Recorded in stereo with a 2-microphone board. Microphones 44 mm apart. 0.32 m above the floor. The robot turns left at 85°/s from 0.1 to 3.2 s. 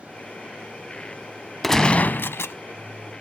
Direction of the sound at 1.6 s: 175° left.